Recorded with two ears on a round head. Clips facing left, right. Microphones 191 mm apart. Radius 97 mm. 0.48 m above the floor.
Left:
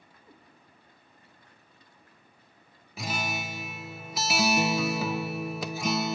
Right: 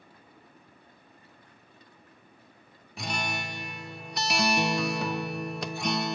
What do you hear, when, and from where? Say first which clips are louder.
0.2 s a cat meowing: even; 75° left (ahead or behind), 6 m
3.0 s a guitar: left 1 dB; centre (ahead or behind), 0.6 m